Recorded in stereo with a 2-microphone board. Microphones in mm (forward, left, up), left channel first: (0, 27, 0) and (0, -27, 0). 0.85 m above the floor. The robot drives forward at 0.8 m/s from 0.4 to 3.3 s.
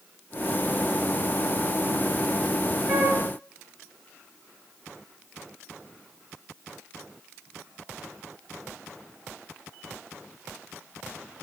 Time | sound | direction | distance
2.9 | a flute | 25° right (ahead or behind) | 8.5 m